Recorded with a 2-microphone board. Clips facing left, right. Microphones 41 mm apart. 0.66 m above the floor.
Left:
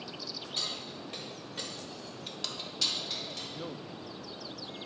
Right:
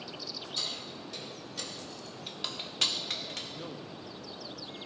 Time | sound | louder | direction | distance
0.6 | keys jangling | left 1 dB | 45° left (ahead or behind) | 3 m
3.5 | a man speaking | left 1 dB | 10° left (ahead or behind) | 0.5 m